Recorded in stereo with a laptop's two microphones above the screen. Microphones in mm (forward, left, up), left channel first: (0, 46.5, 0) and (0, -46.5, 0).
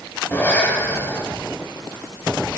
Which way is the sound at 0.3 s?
20° left (ahead or behind).